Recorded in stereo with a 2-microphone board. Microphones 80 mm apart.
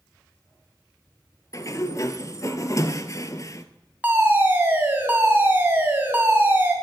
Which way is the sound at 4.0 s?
25° right (ahead or behind).